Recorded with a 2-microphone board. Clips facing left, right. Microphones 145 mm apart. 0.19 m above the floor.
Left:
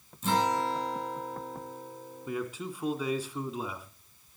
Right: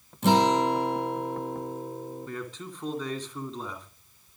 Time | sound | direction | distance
0.2 | a guitar | 65° right (ahead or behind) | 3 m
2.3 | a man speaking | 10° left (ahead or behind) | 2.5 m